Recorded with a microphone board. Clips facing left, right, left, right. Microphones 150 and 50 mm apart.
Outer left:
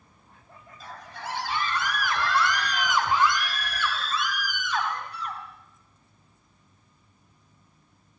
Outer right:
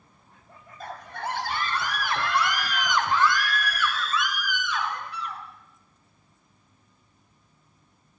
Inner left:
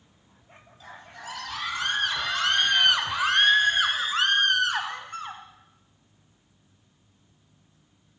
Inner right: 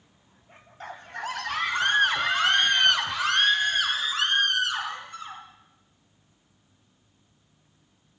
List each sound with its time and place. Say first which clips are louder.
0.8 s a scream: outer right 5 dB, inner right 7 dB; 55° right (ahead or behind), 2.5 m; by 5.4 s 45° left (ahead or behind), 3.5 m